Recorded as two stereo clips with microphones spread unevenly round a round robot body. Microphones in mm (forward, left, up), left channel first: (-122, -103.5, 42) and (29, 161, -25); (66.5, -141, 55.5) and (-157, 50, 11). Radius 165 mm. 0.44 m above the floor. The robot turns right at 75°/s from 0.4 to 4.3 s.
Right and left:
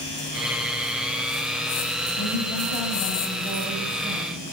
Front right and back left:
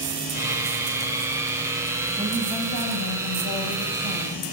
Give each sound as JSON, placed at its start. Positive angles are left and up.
{"t": 2.2, "sound": "a woman speaking", "azimuth_deg": -150, "distance_m": 2.5}